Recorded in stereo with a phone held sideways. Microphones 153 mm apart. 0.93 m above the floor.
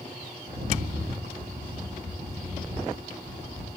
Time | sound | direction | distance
0.5 | a rattle | 75° right (ahead or behind) | 0.9 m